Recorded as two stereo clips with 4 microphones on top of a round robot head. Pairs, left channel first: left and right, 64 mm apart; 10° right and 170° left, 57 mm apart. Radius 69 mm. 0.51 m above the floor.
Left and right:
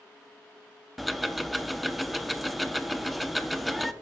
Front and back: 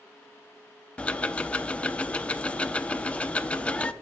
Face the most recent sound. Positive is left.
turn(degrees=-5)